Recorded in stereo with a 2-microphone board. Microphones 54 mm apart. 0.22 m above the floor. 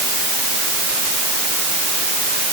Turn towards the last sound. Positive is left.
No sound to turn to.